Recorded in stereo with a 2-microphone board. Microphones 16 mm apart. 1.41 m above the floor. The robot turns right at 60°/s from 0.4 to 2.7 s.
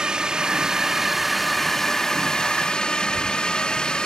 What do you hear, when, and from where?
0.0 s a drone: 60° right; by 4.1 s 75° left